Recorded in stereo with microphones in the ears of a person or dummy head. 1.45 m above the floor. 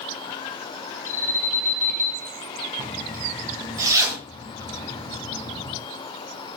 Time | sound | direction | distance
1.1 | an alarm | 45° left (ahead or behind) | 2.5 m
2.8 | a zipper | 20° right (ahead or behind) | 6.5 m